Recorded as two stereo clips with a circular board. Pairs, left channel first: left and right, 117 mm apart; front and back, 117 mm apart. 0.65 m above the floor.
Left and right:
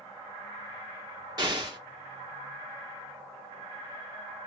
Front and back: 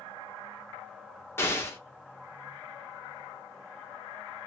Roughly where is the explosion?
Ahead right.